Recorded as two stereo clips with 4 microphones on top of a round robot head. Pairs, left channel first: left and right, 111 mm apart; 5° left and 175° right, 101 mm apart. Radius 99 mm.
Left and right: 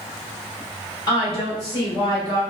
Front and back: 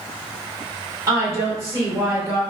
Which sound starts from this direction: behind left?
A woman speaking, at 1.1 s.